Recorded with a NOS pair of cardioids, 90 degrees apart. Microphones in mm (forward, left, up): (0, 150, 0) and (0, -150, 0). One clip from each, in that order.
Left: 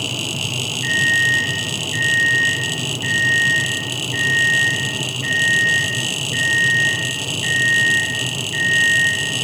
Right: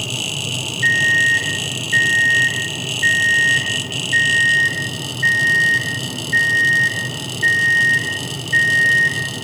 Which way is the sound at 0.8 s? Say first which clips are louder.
Right 2 dB; 65° right.